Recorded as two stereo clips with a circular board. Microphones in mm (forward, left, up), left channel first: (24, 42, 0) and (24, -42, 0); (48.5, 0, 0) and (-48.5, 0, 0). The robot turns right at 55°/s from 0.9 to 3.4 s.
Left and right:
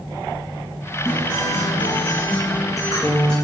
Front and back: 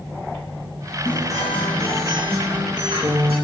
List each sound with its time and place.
1.1 s a guitar: 45° left, 4 m; by 3.4 s 170° left, 4 m